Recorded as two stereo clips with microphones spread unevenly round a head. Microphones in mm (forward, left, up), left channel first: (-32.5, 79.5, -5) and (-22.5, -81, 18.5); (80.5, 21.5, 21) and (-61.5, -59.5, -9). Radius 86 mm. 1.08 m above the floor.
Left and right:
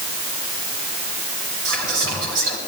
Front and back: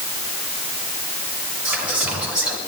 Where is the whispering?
70° right, 5.5 m.